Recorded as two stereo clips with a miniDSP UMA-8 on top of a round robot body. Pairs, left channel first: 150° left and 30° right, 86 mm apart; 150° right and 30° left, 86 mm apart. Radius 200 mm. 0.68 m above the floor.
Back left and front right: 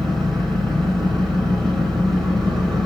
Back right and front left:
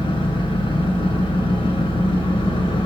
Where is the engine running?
125° right, 1.0 m.